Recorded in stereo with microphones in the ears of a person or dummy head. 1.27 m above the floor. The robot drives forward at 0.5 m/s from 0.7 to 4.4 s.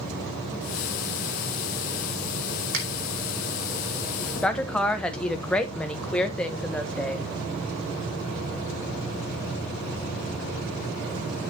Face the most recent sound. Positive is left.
turn(degrees=10)  # may be behind; listen again after turning